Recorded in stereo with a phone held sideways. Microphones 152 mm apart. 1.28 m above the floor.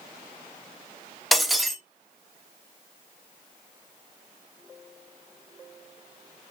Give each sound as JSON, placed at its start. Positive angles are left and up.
{"t": 1.3, "sound": "breaking glass", "side_deg": 0, "distance_m": 0.9}